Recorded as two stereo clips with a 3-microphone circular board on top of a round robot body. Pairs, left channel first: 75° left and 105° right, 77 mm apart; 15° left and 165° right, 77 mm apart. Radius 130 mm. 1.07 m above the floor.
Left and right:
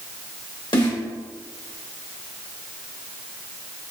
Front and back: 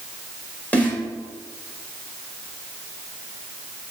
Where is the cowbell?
I don't hear a cowbell.